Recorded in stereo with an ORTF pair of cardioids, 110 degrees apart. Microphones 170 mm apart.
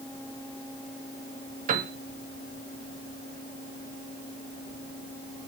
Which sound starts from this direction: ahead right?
A piano, at 1.7 s.